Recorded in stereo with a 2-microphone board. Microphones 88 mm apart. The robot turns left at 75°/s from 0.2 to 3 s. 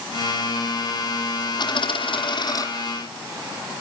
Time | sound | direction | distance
1.6 | a dropped coin | 120° left | 2 m